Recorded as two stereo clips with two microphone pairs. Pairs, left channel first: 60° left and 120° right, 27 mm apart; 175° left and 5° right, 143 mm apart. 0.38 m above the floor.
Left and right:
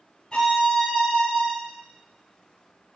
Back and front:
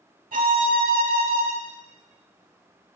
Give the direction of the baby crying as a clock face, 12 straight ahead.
I don't hear a baby crying.